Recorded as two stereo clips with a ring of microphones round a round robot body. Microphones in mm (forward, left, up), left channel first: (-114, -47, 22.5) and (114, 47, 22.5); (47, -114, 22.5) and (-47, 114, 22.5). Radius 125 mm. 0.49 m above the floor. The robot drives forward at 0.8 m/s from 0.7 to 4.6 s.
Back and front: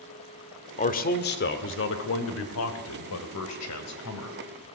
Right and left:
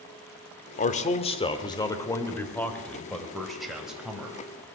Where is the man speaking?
110° right, 1.7 m; by 4.4 s 160° right, 3.5 m.